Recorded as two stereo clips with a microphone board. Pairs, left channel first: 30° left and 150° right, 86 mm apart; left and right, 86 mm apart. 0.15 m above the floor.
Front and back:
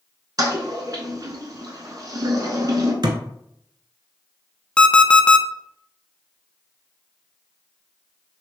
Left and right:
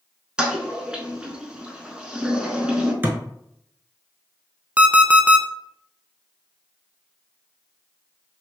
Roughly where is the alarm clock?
Ahead right.